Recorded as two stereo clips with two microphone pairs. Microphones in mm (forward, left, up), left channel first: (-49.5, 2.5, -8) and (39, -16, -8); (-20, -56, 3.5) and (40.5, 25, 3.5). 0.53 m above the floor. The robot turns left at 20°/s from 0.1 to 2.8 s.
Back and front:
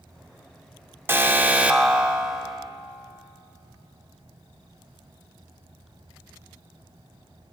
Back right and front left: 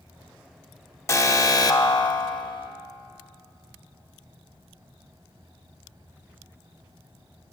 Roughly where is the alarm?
Right.